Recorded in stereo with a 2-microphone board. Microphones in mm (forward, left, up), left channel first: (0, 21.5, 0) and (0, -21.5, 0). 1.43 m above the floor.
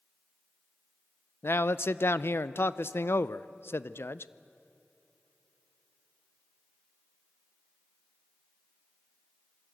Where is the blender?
No blender in this recording.